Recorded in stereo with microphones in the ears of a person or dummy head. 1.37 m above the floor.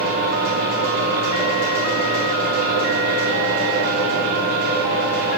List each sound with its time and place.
0.0 s a fan: 45° right (ahead or behind), 2.5 m